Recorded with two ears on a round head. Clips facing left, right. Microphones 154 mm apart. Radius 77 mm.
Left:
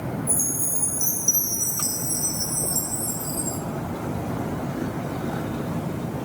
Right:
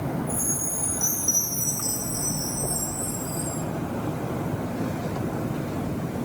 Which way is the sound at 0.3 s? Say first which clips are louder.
Right 1 dB; 75° left (ahead or behind).